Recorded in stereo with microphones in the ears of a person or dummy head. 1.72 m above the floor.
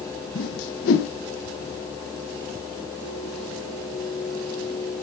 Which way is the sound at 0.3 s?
65° left (ahead or behind).